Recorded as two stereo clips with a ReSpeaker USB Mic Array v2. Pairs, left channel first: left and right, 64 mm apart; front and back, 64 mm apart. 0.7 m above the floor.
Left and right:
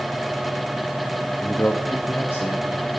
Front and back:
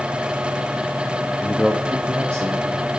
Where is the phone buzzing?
I don't hear a phone buzzing.